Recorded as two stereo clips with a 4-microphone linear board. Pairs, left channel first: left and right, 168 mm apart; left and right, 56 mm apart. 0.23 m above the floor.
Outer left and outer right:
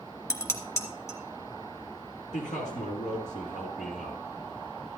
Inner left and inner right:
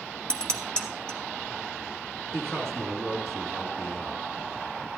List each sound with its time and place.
0.3 s dishes clattering: 20° left (ahead or behind), 1.5 m
2.3 s a man speaking: 50° left (ahead or behind), 3 m